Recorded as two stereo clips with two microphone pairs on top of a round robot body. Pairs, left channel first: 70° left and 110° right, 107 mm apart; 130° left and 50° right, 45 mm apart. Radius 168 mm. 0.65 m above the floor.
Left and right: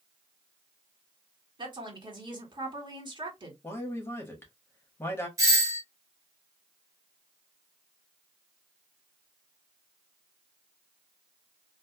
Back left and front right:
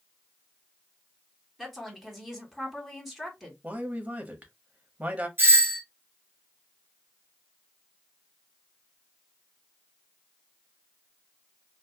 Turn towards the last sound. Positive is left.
turn(degrees=-60)